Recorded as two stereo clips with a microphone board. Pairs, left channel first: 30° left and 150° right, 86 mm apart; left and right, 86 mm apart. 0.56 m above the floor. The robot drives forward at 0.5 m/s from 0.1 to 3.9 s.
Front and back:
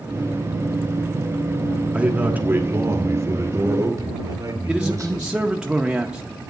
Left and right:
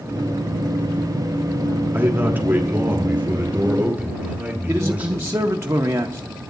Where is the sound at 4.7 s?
80° right, 0.6 m.